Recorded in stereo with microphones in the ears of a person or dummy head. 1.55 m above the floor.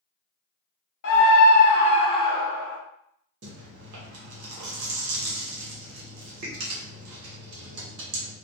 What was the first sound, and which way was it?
A scream, 65° left (ahead or behind).